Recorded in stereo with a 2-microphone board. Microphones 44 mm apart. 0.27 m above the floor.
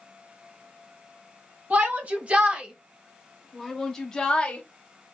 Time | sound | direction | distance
1.7 | a shout | 40° right (ahead or behind) | 1.8 m